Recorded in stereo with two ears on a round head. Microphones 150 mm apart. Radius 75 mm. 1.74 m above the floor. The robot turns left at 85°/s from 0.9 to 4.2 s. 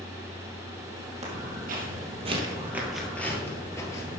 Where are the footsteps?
40° right (ahead or behind), 3 m; by 4.2 s 20° left (ahead or behind), 1.8 m.